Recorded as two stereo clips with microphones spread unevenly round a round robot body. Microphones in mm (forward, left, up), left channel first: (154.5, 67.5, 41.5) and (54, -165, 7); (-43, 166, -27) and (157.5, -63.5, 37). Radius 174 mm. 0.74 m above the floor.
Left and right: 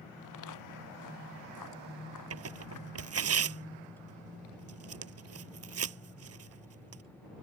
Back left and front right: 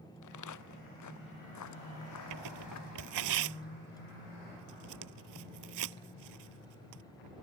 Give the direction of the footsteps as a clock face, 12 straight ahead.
9 o'clock.